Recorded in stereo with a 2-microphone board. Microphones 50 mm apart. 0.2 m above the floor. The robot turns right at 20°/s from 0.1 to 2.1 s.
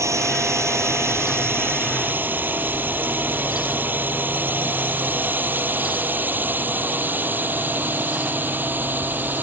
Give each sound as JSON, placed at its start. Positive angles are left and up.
{"t": 0.0, "sound": "a drone", "side_deg": -70}